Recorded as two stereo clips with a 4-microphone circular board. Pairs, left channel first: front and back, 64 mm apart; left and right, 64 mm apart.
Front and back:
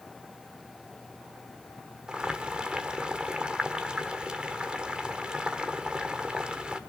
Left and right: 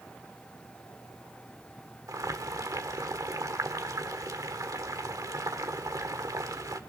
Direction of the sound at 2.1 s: 105° right.